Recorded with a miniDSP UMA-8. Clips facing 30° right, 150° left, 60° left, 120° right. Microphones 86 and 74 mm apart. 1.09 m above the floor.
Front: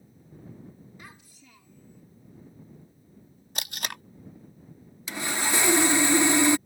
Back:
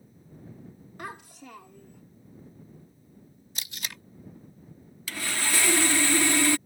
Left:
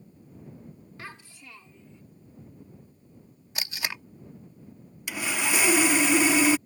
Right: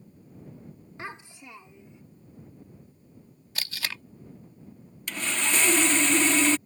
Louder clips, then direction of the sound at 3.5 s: Front 5 dB, left 1 dB; 10° right.